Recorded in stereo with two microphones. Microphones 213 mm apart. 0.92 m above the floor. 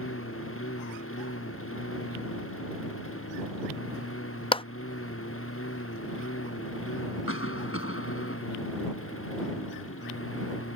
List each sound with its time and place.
0.0 s a lawn mower: 85° left; by 10.8 s 80° left
4.5 s a clap: 25° left (ahead or behind)
7.3 s a cough: 85° left